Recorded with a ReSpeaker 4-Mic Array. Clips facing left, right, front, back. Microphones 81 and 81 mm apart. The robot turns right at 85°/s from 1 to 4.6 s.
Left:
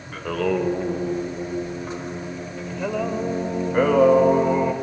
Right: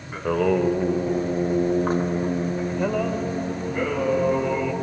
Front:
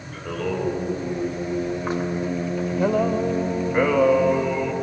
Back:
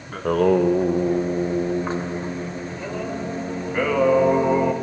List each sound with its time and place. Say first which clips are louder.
0.1 s singing: right 2 dB, back 9 dB; 165° right, 0.7 m; by 4.7 s 140° left, 0.7 m